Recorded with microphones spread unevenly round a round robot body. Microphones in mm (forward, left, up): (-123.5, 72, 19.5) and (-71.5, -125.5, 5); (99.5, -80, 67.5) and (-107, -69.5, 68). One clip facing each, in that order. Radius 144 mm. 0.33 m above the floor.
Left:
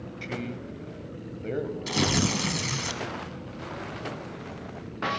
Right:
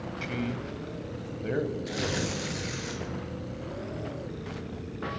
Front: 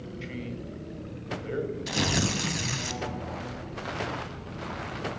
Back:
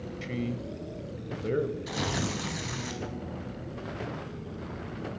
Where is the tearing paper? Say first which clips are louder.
Left 5 dB, front 3 dB; 65° left, 0.6 m.